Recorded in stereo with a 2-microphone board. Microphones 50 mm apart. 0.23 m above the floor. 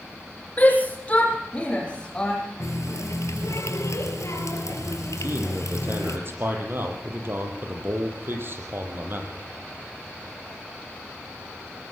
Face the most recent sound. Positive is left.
turn(degrees=-45)  # may be behind; listen again after turning